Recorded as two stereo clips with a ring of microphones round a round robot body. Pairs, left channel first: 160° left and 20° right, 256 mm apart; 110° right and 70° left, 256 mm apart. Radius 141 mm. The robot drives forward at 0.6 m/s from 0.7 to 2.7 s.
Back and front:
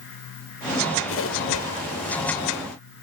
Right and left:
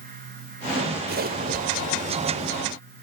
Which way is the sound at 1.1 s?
120° left.